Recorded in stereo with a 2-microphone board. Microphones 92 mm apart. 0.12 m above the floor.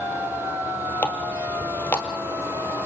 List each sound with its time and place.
1.0 s a running tap: 20° left (ahead or behind), 2 m